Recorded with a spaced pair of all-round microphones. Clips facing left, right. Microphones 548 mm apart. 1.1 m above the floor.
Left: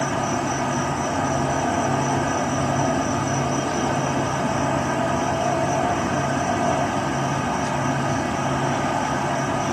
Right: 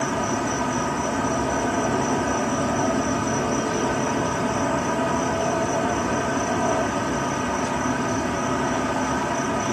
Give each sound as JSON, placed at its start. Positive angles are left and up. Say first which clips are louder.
{"t": 0.0, "sound": "an insect", "louder": "even", "side_deg": 20, "distance_m": 1.4}